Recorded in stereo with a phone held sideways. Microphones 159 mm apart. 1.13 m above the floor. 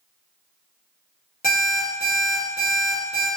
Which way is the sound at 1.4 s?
65° left (ahead or behind).